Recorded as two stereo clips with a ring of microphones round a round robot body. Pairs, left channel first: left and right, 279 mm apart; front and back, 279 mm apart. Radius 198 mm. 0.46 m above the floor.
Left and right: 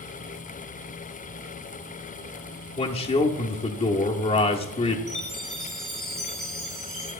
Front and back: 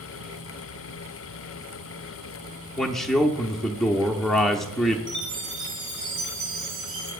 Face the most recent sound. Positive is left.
turn(degrees=-155)